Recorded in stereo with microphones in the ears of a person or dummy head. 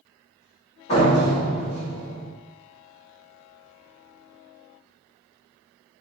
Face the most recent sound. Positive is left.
turn(degrees=30)  # may be behind; listen again after turning